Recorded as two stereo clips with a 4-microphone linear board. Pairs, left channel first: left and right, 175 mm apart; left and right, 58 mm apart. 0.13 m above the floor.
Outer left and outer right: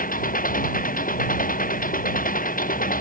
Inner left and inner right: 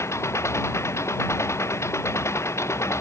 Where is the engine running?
50° left (ahead or behind).